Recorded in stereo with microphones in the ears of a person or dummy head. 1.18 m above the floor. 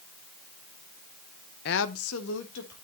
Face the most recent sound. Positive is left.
turn(degrees=65)  # may be behind; listen again after turning